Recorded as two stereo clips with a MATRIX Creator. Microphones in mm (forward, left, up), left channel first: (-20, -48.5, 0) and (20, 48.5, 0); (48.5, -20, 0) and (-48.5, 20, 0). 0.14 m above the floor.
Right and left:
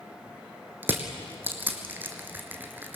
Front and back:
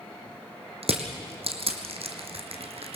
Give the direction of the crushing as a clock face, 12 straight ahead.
7 o'clock.